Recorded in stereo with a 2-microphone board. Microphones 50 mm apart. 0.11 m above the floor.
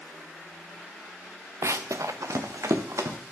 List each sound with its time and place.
1.6 s running footsteps: 65° right (ahead or behind), 0.7 m; by 3.2 s 85° right, 1.9 m